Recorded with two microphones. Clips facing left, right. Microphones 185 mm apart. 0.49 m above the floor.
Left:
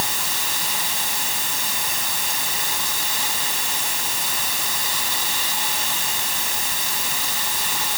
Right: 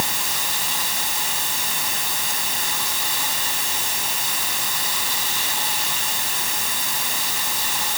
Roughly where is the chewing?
No chewing in this recording.